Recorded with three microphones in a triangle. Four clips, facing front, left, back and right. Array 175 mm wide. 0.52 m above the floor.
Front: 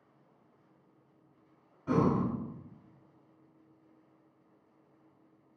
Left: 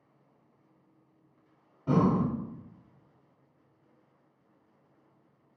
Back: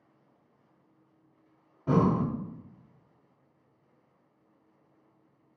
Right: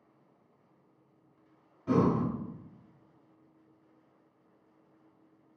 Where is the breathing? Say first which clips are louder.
Left 1 dB, back 3 dB; 165° left, 1.3 m.